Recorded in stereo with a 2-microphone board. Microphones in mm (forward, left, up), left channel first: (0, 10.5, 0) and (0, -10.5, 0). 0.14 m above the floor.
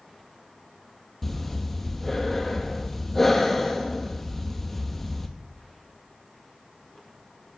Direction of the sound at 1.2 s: 15° left (ahead or behind).